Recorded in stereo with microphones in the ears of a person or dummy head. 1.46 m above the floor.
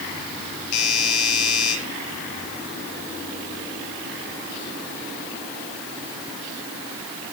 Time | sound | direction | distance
0.7 | a doorbell | 40° left (ahead or behind) | 9 m